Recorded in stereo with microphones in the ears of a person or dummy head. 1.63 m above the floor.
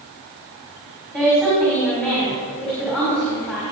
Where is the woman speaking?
5° left (ahead or behind), 3.5 m.